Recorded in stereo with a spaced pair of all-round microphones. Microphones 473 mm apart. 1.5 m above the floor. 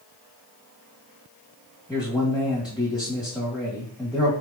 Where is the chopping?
No chopping in this recording.